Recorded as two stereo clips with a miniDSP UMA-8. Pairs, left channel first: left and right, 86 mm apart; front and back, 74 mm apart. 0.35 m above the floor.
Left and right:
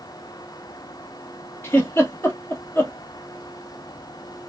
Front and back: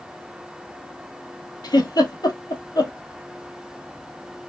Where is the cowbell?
No cowbell in this recording.